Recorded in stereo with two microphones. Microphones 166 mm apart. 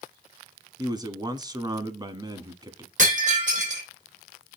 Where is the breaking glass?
50° right (ahead or behind), 4 m.